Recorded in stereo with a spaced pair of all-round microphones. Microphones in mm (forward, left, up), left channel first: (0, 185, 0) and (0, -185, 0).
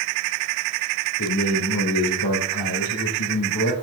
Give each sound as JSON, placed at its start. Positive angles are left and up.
{"t": 1.2, "sound": "a man speaking", "side_deg": 55, "distance_m": 3.0}